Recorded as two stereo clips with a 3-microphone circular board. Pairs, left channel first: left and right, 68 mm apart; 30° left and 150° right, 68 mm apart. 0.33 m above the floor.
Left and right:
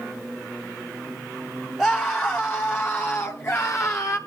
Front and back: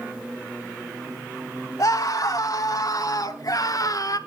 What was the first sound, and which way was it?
A scream, 15° left.